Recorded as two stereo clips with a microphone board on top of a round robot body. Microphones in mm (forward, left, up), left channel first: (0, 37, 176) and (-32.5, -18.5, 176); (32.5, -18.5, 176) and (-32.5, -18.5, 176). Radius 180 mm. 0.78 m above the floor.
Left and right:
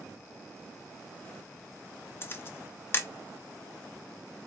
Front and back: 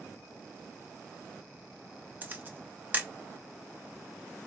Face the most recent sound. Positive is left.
turn(degrees=115)